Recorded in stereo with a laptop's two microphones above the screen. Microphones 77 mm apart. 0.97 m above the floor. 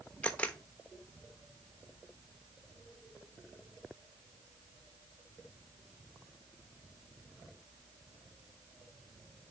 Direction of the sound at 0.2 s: 15° left (ahead or behind).